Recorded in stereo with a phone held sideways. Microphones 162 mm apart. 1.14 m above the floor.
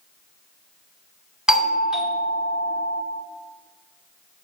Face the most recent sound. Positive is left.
turn(degrees=-5)  # may be behind; listen again after turning